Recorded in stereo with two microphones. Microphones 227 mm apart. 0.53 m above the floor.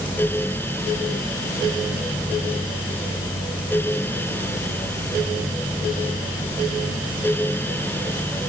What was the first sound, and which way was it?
Only background noise.